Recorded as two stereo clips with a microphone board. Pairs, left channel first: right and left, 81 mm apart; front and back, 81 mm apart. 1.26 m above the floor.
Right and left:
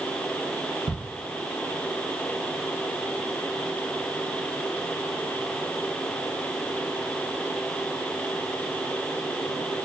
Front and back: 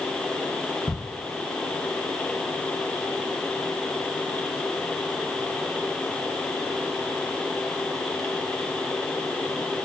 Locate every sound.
0.9 s ticking: 95° left, 0.9 m